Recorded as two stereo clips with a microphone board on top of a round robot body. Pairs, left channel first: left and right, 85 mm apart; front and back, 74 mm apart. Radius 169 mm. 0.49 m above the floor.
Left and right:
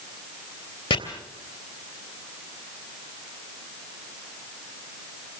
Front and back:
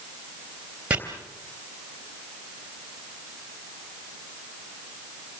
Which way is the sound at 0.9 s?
110° left.